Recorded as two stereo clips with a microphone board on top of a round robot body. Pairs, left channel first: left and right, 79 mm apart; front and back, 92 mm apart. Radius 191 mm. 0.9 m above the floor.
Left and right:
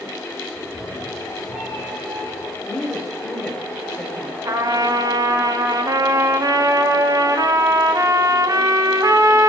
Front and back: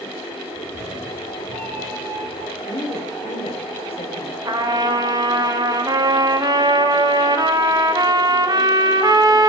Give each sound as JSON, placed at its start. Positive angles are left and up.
{"t": 0.6, "sound": "a cat meowing", "azimuth_deg": -160, "distance_m": 4.5}
{"t": 2.6, "sound": "a woman speaking", "azimuth_deg": 10, "distance_m": 5.0}
{"t": 4.5, "sound": "a trumpet", "azimuth_deg": -135, "distance_m": 2.0}